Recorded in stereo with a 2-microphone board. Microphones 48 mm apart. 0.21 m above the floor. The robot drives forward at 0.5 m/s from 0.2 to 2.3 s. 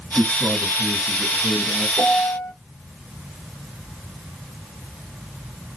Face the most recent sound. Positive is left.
turn(degrees=-30)  # may be behind; listen again after turning